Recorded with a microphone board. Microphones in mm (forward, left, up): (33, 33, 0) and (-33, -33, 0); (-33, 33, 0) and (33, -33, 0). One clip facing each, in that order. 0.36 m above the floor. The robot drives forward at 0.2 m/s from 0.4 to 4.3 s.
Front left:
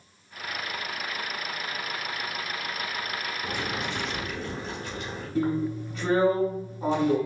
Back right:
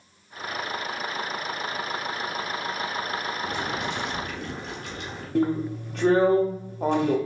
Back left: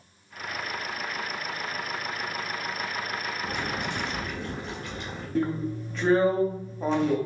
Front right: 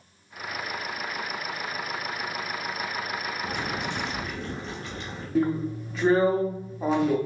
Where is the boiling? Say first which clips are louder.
Back right 2 dB, even; 145° right, 2 m.